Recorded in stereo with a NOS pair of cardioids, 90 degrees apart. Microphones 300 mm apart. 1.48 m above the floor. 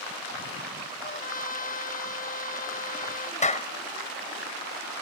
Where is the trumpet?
30° left.